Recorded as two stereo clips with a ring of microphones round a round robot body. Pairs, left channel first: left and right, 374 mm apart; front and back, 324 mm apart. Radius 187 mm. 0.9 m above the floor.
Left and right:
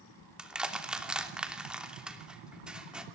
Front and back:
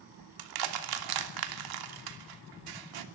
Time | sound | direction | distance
0.4 | crushing | straight behind | 3 m